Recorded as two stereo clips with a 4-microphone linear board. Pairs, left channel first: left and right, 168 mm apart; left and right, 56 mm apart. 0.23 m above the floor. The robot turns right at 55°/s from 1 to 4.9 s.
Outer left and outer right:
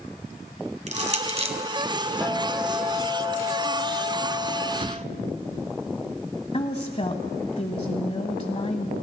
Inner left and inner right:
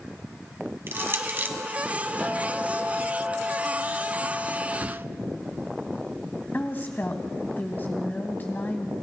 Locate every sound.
0.9 s crushing: 45° right (ahead or behind), 2.0 m; by 1.6 s 35° right (ahead or behind), 2.0 m
2.2 s a guitar: straight behind, 8 m; by 4.7 s 45° right, 8 m
4.8 s a whoosh: 40° right (ahead or behind), 0.9 m; by 5.1 s 45° right (ahead or behind), 0.9 m
6.5 s a woman speaking: 40° left (ahead or behind), 1.2 m